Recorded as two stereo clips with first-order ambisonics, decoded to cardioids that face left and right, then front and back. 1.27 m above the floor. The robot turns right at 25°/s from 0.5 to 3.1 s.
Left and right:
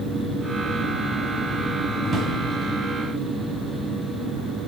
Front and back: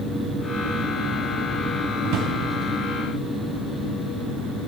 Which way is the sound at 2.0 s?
160° right.